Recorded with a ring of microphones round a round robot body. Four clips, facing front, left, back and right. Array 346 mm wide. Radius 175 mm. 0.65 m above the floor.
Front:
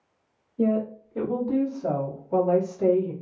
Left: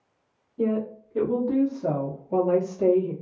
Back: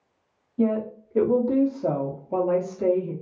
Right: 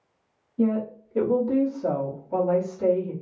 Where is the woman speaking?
175° left, 1.7 m; by 3.1 s 115° left, 1.2 m.